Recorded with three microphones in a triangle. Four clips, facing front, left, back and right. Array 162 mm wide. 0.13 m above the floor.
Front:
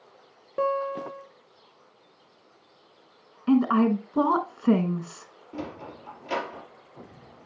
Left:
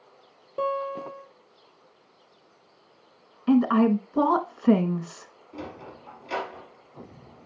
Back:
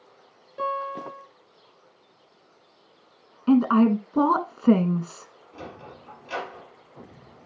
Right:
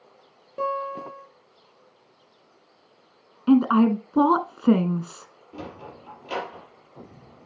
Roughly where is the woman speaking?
Behind right.